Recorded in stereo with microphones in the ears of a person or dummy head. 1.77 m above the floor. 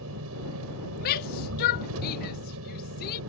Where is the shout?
50° left (ahead or behind).